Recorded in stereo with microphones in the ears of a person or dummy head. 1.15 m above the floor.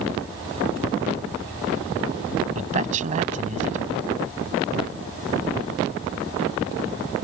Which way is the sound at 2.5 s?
45° right (ahead or behind).